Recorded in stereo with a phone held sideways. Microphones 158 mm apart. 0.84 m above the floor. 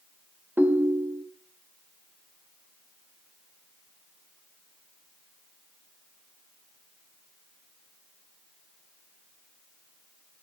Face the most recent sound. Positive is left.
turn(degrees=-10)  # may be behind; listen again after turning